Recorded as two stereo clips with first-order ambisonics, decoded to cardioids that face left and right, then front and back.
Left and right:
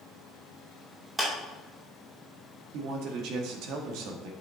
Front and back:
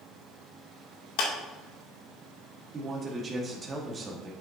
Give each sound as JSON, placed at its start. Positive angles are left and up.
{"t": 1.2, "sound": "a clap", "azimuth_deg": -5, "distance_m": 2.0}
{"t": 2.7, "sound": "a man speaking", "azimuth_deg": -110, "distance_m": 1.5}